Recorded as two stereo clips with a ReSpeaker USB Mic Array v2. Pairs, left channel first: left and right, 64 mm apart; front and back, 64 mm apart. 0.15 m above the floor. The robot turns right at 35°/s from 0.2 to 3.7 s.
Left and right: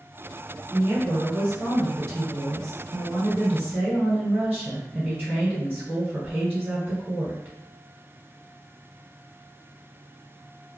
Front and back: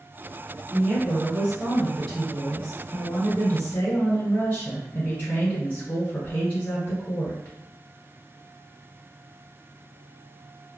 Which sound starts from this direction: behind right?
A woman speaking, at 0.7 s.